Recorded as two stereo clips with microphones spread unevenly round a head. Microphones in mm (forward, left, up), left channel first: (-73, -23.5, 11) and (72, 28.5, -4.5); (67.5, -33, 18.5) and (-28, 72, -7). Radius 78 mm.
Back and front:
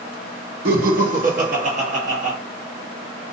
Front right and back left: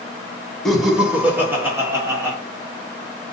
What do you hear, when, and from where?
0.7 s laughter: 45° left, 0.8 m; by 2.4 s 65° left, 1.7 m